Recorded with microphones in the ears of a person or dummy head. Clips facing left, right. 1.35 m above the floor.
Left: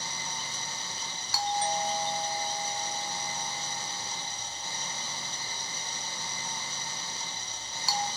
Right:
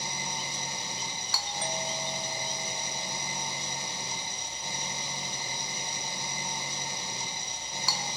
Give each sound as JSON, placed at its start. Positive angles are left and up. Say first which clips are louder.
{"t": 0.0, "sound": "an engine running", "louder": "right 3 dB", "side_deg": -15, "distance_m": 1.1}
{"t": 1.3, "sound": "a doorbell", "louder": "left 7 dB", "side_deg": -60, "distance_m": 1.2}